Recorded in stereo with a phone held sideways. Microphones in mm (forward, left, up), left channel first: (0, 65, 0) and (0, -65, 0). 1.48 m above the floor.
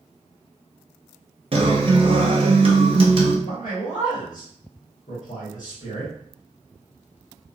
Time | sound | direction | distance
1.5 | a guitar | 45° right (ahead or behind) | 0.7 m
3.4 | a man speaking | 75° left (ahead or behind) | 1.3 m